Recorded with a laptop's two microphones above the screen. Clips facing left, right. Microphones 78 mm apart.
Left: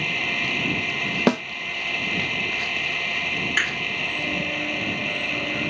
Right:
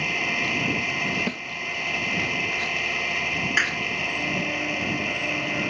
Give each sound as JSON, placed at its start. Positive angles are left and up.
{"t": 0.0, "sound": "an engine running", "side_deg": -5}
{"t": 1.3, "sound": "a snare drum", "side_deg": 80}
{"t": 3.6, "sound": "a clap", "side_deg": -5}